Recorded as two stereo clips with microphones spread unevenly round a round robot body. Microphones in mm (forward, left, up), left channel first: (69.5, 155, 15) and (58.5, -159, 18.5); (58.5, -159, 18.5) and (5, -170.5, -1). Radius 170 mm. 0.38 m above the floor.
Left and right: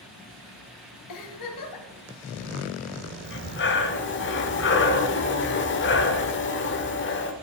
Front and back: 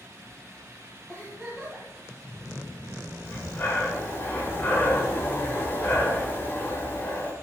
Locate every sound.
1.1 s a giggle: 110° left, 1.5 m
3.2 s breathing: 80° left, 1.0 m